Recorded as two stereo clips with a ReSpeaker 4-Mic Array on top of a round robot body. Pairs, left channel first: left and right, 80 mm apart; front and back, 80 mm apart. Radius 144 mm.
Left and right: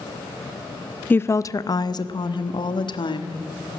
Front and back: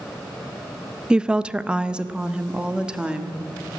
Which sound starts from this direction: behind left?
A woman speaking, at 1.1 s.